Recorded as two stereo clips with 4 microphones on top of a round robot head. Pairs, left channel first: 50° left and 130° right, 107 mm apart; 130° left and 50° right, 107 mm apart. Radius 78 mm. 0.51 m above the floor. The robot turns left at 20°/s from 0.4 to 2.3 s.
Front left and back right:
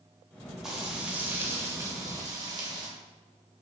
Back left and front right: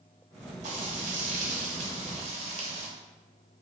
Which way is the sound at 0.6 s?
45° right.